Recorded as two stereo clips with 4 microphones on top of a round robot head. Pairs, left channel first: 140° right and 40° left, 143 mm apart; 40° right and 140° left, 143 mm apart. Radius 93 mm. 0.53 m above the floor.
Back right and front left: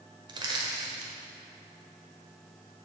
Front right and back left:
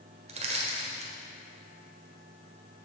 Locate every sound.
0.3 s crushing: 100° left, 1.5 m